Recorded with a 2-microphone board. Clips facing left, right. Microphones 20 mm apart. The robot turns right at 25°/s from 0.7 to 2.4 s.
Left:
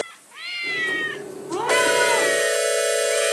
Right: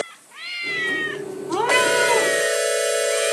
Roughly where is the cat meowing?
Centre.